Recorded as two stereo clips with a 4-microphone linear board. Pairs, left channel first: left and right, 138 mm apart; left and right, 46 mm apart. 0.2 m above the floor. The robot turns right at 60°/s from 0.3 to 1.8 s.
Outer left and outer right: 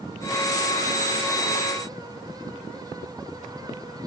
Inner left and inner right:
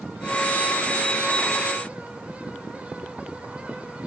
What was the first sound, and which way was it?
Only background noise.